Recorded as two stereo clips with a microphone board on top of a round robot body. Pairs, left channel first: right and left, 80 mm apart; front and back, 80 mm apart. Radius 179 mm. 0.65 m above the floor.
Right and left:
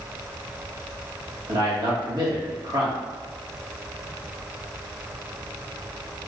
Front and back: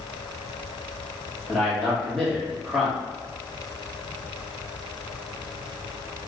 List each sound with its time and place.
1.5 s a man speaking: 85° left, 1.6 m